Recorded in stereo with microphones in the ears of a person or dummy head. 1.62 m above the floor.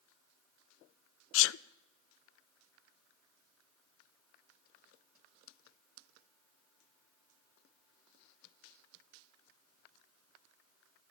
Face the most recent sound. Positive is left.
turn(degrees=75)  # may be behind; listen again after turning